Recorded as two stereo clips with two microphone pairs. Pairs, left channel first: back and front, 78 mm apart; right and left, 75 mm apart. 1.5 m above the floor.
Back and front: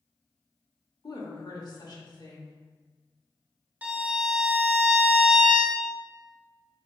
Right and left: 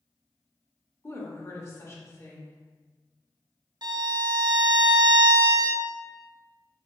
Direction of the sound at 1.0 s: 145° right.